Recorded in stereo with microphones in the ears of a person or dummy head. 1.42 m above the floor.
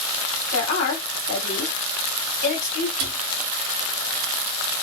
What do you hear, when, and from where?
0.5 s a woman speaking: 70° left (ahead or behind), 1.8 m
3.0 s a cupboard door: 45° right (ahead or behind), 1.1 m